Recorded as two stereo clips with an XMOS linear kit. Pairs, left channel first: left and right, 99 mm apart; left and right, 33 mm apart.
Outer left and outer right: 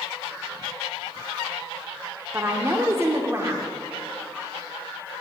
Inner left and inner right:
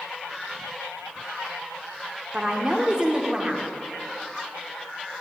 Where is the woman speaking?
25° right (ahead or behind), 1.0 m.